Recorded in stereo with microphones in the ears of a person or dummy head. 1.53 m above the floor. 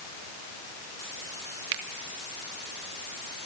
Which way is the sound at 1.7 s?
70° right (ahead or behind).